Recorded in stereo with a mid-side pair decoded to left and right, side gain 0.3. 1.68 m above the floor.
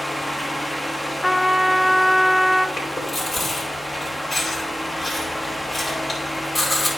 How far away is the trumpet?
About 0.6 m.